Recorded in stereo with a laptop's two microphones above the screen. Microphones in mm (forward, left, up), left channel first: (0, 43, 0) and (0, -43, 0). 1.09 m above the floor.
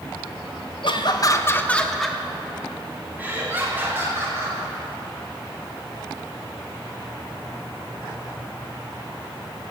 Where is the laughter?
65° left (ahead or behind), 1.2 m; by 4.6 s 30° right (ahead or behind), 4 m.